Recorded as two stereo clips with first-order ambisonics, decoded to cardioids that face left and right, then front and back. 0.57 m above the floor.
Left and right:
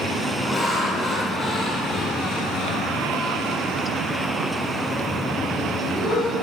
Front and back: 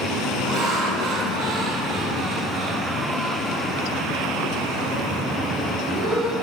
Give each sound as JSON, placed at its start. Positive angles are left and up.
{"t": 0.4, "sound": "laughter", "azimuth_deg": 165, "distance_m": 1.4}